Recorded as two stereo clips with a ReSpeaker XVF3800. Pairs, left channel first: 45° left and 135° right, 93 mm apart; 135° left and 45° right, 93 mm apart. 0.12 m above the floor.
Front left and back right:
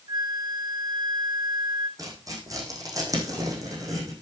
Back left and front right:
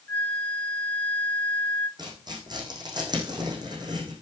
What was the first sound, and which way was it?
A flute, 155° right.